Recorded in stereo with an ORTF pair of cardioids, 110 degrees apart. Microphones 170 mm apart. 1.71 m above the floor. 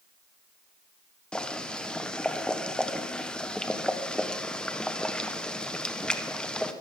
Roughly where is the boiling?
Ahead.